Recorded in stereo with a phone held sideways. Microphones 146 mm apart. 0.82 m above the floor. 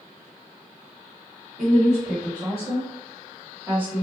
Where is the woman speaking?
65° right (ahead or behind), 1.4 m; by 4.0 s 5° right (ahead or behind), 1.1 m.